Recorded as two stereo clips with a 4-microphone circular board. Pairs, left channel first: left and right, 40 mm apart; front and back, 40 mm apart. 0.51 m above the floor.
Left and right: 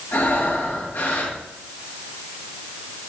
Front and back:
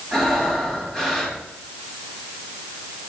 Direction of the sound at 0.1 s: 75° left.